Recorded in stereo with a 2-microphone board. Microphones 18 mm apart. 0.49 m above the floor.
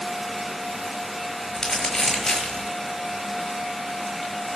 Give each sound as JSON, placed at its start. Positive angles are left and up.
{"t": 1.6, "sound": "crumpling", "side_deg": 30, "distance_m": 6.0}